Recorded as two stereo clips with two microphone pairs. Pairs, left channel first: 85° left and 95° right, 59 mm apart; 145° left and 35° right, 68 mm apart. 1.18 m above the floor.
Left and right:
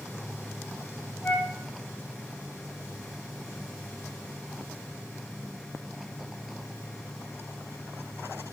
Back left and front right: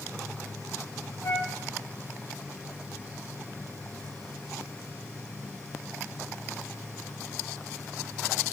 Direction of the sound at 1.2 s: 165° left.